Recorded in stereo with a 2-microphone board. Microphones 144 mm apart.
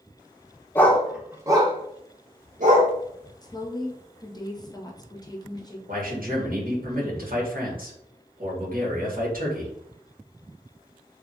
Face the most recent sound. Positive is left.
turn(degrees=-70)  # may be behind; listen again after turning